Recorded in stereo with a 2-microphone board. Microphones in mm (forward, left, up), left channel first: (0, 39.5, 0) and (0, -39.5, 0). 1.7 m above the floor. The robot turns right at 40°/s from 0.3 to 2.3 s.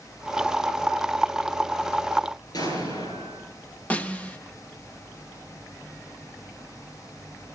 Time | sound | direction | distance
2.5 | an explosion | 55° left (ahead or behind) | 8 m
3.9 | a snare drum | 20° left (ahead or behind) | 1.0 m